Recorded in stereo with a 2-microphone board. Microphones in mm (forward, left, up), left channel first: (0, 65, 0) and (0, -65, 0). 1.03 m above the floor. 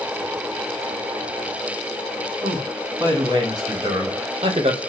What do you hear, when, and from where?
2.4 s a man speaking: 25° right (ahead or behind), 1.9 m; by 4.8 s 50° right (ahead or behind), 0.6 m